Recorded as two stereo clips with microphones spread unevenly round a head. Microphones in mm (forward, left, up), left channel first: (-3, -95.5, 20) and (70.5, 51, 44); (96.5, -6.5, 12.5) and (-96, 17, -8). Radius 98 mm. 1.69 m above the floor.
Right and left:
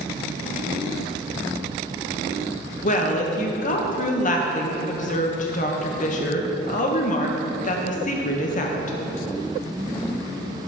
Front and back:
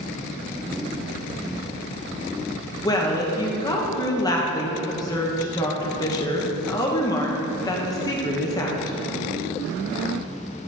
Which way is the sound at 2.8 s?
75° right.